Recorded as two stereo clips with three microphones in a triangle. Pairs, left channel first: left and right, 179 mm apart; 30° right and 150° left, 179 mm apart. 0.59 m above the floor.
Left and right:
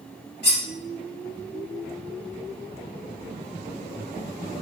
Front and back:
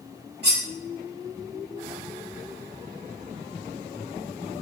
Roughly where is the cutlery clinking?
Behind left.